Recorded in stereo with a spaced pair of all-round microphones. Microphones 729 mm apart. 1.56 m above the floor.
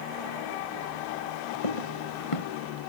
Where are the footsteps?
45° left (ahead or behind).